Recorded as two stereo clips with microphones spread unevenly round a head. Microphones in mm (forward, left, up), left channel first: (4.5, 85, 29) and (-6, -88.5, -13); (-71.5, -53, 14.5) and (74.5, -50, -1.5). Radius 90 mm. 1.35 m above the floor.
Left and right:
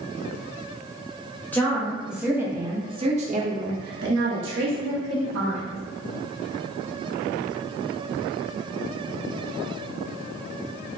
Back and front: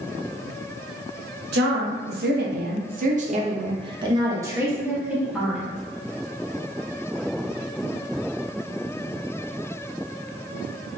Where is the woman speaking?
10° left, 1.3 m; by 5.8 s 90° right, 1.8 m.